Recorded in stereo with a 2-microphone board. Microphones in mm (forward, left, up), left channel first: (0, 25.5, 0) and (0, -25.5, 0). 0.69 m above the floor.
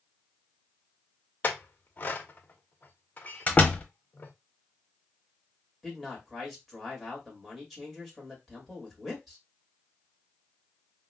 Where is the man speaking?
Centre (ahead or behind), 1.6 m.